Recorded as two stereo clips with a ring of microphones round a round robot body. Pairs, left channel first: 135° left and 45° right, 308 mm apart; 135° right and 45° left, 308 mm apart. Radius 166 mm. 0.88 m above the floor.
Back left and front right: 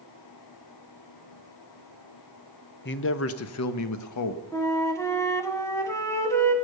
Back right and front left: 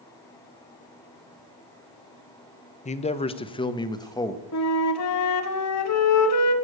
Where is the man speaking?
170° left, 0.8 m; by 4.4 s 145° left, 1.4 m.